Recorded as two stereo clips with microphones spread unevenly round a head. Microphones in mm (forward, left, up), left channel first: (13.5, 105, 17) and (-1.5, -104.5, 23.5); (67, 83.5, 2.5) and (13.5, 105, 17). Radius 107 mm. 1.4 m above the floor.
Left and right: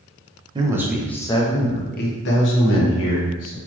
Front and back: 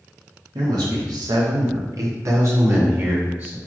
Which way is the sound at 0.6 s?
165° right.